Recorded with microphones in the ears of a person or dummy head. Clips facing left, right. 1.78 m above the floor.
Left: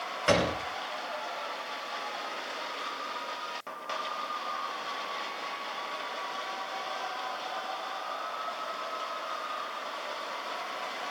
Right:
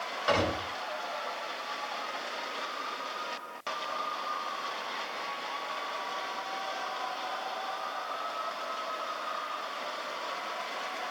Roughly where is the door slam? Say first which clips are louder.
Left 2 dB; left.